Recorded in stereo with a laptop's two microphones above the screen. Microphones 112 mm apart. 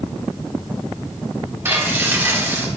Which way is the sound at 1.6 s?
25° right (ahead or behind).